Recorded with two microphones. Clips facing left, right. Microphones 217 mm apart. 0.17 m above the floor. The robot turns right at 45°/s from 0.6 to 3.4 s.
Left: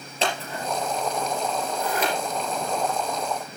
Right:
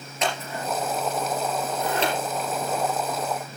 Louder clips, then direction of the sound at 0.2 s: Even; 30° left (ahead or behind).